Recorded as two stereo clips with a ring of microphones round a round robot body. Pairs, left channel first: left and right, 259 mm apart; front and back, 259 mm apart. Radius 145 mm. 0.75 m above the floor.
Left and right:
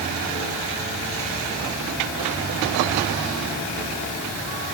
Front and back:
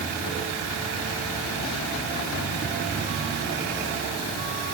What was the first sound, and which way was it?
Only background noise.